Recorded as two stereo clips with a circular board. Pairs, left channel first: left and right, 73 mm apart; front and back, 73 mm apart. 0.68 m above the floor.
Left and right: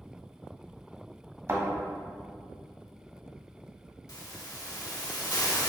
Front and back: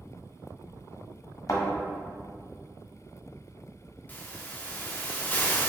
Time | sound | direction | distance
1.5 | a thud | 45° right | 1.3 m
4.1 | a hiss | 70° left | 0.7 m